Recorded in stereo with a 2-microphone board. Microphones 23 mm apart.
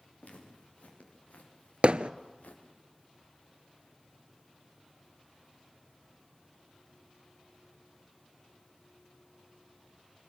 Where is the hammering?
55° right (ahead or behind), 0.6 m.